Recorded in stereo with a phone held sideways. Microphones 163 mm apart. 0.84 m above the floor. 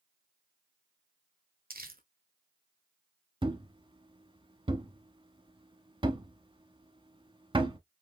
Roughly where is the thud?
Right.